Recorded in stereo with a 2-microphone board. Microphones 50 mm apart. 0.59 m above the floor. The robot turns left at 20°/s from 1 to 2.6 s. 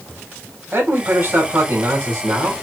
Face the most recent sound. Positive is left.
turn(degrees=-90)